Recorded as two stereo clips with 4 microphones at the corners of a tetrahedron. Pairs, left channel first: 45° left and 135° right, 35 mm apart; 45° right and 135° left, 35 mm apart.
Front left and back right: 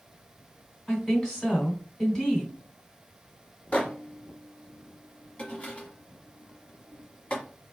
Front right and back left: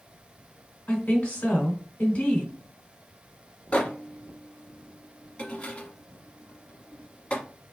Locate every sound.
0.9 s a woman speaking: 20° right, 2.5 m
3.7 s a microwave: straight ahead, 1.3 m